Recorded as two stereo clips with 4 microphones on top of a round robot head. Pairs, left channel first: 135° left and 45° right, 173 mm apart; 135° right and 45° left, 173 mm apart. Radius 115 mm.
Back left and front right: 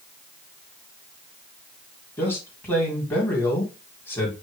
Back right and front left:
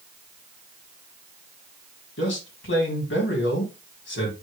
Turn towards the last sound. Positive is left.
turn(degrees=-145)